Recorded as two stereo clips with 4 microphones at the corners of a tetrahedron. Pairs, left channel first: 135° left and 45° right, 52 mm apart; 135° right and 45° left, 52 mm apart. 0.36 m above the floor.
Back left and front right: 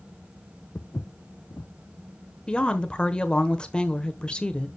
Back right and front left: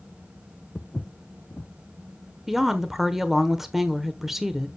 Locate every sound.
0.8 s footsteps: 165° left, 0.7 m
2.5 s a woman speaking: 120° left, 1.1 m